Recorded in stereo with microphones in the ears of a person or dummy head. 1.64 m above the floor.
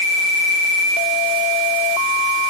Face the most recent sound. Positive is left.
No sound to turn to.